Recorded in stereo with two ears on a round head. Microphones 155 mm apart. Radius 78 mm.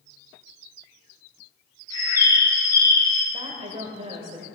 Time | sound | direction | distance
1.9 | a bird | 20° left (ahead or behind) | 2.5 m
3.3 | a woman speaking | 35° right (ahead or behind) | 1.7 m